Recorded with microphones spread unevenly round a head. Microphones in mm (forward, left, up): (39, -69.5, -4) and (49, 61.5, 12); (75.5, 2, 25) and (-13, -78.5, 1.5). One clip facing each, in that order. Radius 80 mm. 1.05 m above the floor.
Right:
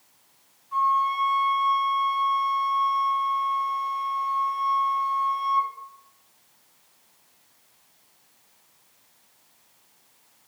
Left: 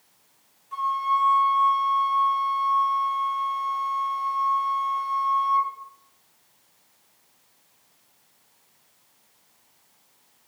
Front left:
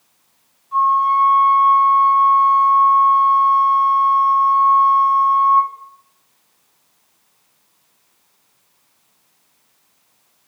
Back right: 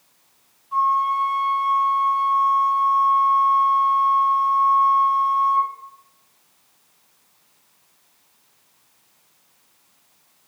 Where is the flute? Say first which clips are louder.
Right 2 dB, front left 5 dB; 130° left, 0.5 m.